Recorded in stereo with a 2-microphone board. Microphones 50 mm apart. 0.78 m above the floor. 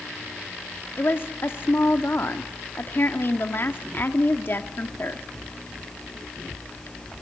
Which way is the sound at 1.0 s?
50° left (ahead or behind).